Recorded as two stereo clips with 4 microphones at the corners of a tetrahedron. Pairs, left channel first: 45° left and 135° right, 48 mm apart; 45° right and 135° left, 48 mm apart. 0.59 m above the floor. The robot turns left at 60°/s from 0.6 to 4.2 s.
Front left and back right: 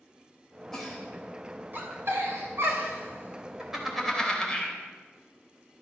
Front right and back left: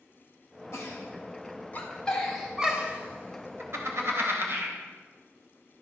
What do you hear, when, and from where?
0.7 s a giggle: 35° right, 3 m; by 4.8 s 115° left, 3 m